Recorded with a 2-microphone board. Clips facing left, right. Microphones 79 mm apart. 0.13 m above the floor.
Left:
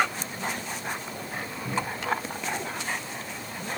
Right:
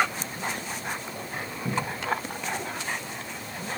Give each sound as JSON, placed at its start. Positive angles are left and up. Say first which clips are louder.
{"t": 1.6, "sound": "a cupboard door", "louder": "even", "side_deg": -70, "distance_m": 4.5}